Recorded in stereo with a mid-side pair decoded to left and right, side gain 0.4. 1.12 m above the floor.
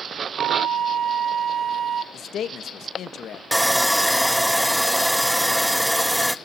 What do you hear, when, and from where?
0.4 s a flute: 70° right, 1.5 m
2.1 s a man speaking: 70° left, 1.0 m
3.5 s sawing: 5° right, 0.8 m